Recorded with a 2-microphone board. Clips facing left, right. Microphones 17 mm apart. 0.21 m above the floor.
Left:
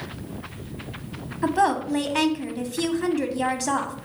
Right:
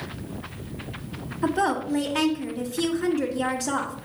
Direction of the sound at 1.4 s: 30° left (ahead or behind).